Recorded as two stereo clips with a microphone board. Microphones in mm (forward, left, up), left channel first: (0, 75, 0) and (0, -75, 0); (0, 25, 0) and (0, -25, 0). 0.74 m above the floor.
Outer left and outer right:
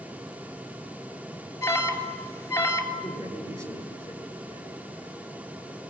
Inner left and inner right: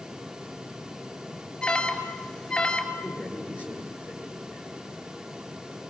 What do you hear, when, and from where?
1.6 s an alarm: 15° left (ahead or behind), 3 m
2.9 s a man speaking: 20° right (ahead or behind), 9.5 m